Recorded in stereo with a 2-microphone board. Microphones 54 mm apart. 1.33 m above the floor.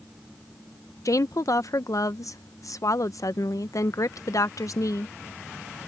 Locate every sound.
1.1 s a woman speaking: 75° left (ahead or behind)